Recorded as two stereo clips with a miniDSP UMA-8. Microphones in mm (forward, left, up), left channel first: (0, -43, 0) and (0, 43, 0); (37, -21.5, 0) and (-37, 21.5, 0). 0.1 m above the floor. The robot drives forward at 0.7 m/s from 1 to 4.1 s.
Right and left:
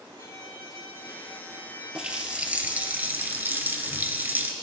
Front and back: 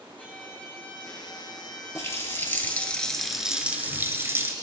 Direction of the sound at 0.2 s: 100° right.